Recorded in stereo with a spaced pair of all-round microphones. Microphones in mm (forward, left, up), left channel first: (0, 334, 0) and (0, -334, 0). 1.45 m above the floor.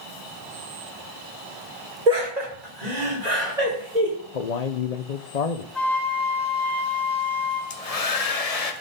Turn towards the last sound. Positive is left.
turn(degrees=60)  # may be behind; listen again after turning